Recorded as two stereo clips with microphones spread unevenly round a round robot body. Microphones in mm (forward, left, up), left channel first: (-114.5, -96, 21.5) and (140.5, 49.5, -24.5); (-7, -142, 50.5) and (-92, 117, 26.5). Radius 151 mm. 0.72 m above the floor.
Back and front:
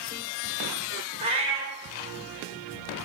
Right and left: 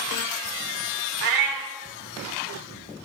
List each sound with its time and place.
1.2 s a cat meowing: 105° left, 0.8 m